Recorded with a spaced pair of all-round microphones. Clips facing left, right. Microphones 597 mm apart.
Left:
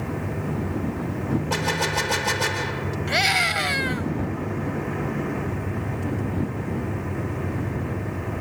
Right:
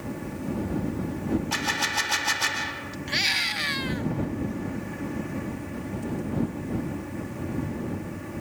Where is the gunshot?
90° left.